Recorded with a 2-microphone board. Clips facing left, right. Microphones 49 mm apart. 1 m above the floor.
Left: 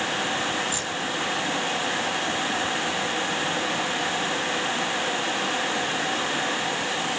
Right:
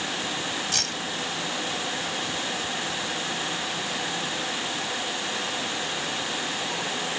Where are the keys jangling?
80° right.